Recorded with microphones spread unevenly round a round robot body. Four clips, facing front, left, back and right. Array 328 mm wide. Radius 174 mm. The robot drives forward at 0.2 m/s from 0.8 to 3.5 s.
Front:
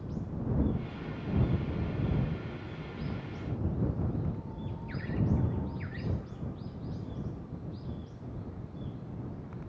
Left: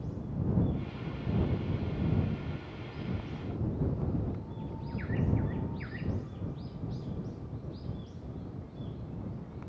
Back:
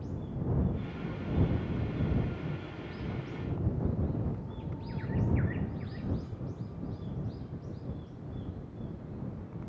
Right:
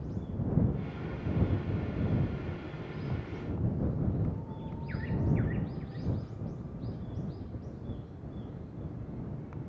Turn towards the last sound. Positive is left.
No sound to turn to.